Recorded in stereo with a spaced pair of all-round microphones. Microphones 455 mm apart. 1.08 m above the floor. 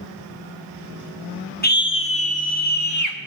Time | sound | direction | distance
1.6 | a scream | 20° left (ahead or behind) | 1.1 m